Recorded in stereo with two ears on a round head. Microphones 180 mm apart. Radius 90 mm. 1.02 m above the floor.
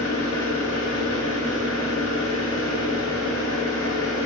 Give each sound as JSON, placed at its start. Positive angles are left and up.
{"t": 0.0, "sound": "an engine running", "side_deg": 65, "distance_m": 1.0}